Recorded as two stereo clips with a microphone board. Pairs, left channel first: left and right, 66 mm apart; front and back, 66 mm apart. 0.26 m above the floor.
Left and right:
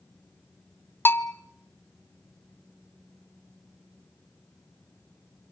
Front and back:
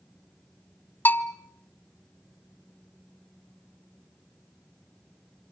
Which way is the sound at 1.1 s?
50° left.